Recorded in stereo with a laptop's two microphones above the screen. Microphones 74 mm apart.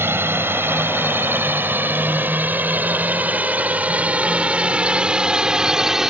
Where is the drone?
35° right (ahead or behind); by 6.1 s 5° right (ahead or behind).